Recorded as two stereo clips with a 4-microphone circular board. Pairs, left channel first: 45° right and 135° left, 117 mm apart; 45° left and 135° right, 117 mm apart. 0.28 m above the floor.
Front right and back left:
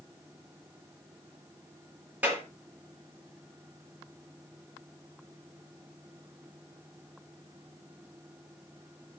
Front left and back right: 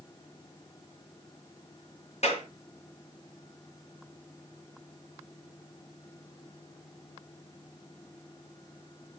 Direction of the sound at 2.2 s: 60° left.